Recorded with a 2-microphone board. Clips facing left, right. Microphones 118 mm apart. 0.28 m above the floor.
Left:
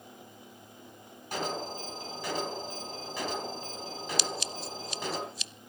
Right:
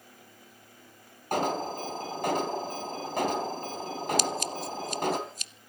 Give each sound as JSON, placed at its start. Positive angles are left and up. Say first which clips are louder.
{"t": 1.3, "sound": "an alarm", "louder": "right 6 dB", "side_deg": -55, "distance_m": 3.5}
{"t": 4.2, "sound": "scissors", "louder": "right 5 dB", "side_deg": -45, "distance_m": 0.6}